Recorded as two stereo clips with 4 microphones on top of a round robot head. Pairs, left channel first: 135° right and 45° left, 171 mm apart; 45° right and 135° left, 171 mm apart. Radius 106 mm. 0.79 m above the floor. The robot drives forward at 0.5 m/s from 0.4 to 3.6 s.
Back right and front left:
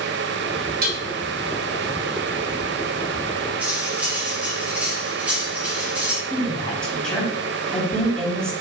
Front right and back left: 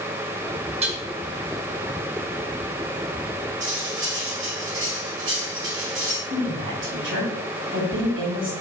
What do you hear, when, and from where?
0.8 s dishes clattering: 80° left, 2.0 m
3.6 s cutlery clinking: 130° left, 4 m
6.3 s a woman speaking: 140° left, 4 m